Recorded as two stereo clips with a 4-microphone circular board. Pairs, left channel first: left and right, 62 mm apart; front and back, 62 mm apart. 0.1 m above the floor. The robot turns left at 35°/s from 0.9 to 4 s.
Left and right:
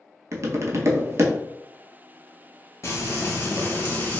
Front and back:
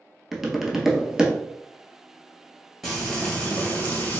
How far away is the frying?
About 1.6 m.